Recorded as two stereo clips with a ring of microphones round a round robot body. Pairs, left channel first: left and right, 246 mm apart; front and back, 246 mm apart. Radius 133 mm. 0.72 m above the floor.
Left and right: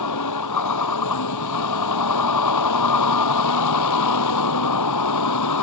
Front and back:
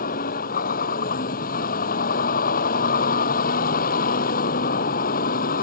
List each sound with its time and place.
0.0 s a vehicle: 60° left